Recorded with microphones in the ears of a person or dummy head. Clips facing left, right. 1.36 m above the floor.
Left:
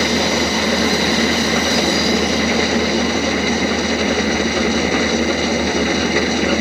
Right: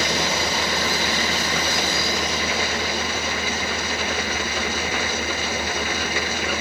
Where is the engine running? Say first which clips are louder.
Left 8 dB; 60° left (ahead or behind).